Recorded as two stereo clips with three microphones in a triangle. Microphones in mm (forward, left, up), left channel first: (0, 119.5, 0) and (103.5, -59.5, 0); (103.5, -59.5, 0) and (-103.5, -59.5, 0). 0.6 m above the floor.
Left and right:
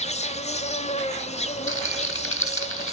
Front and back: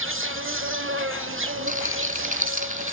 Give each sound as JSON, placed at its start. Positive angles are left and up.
{"t": 0.0, "sound": "an insect", "azimuth_deg": 175, "distance_m": 1.2}
{"t": 1.7, "sound": "a rattle", "azimuth_deg": 130, "distance_m": 1.6}